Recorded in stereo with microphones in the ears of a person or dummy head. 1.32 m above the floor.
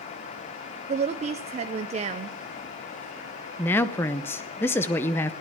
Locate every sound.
0.9 s a woman speaking: 30° right (ahead or behind), 0.6 m
3.6 s a woman speaking: 10° left (ahead or behind), 0.8 m